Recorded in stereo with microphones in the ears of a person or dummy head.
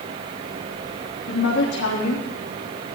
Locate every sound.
1.3 s a woman speaking: 65° left (ahead or behind), 3 m